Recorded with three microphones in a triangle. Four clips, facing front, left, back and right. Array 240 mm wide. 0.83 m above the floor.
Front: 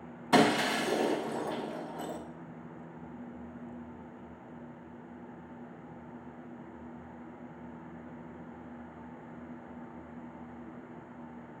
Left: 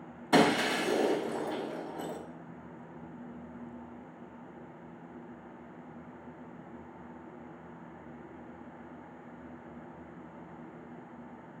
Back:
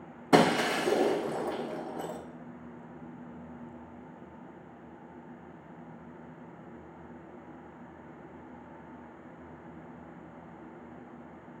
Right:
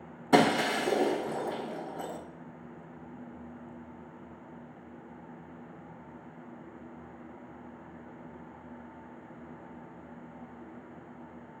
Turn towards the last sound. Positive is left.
turn(degrees=-150)